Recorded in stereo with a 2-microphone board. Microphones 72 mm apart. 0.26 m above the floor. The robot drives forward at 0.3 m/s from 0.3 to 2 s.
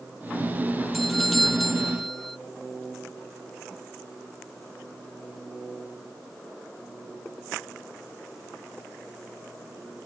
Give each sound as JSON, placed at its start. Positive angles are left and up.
{"t": 0.9, "sound": "a doorbell", "side_deg": 0}